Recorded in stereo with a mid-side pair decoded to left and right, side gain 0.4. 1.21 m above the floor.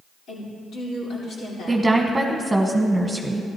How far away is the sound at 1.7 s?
About 1.2 m.